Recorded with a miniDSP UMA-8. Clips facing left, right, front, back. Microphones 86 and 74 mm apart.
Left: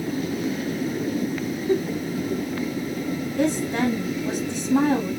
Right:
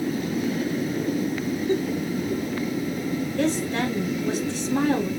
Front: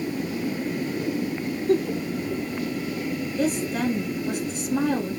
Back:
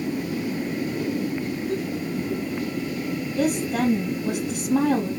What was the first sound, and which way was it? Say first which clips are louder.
A giggle: left 3 dB, front 9 dB; 10° left.